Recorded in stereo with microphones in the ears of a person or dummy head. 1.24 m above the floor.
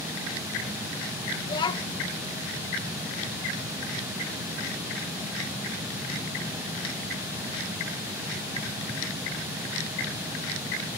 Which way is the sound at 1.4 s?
25° left (ahead or behind).